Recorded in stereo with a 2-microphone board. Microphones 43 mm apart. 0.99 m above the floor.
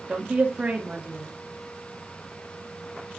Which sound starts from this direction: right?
A woman speaking, at 0.1 s.